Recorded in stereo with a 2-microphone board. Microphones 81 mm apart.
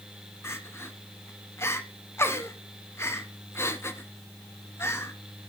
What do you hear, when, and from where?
0.4 s crying: 30° left (ahead or behind), 0.7 m